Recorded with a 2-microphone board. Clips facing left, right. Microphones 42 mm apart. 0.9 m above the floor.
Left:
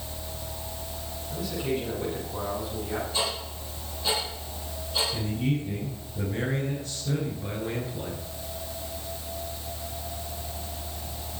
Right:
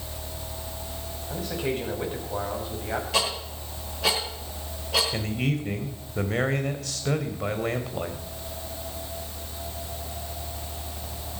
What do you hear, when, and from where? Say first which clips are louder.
1.3 s a man speaking: right 1 dB; 45° right (ahead or behind), 6.5 m
3.1 s ticking: right 3 dB; 80° right, 10 m
5.1 s a man speaking: right 1 dB; 75° right (ahead or behind), 3.5 m